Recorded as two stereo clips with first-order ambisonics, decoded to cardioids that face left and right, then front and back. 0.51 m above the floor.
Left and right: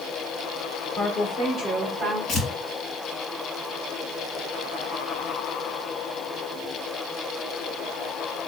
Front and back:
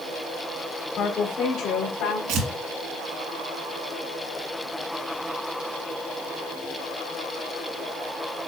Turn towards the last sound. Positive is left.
turn(degrees=150)